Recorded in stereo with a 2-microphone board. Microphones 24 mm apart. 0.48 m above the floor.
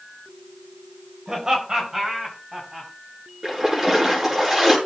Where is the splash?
25° right (ahead or behind), 6 m.